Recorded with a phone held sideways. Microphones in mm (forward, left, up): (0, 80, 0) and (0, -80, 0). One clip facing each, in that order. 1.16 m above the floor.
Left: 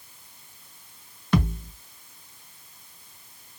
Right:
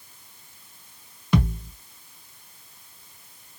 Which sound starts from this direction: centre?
A thud, at 1.3 s.